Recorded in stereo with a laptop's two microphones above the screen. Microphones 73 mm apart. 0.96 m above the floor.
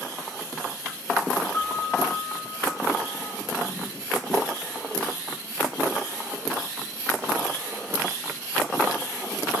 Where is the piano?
25° left (ahead or behind), 9.5 m.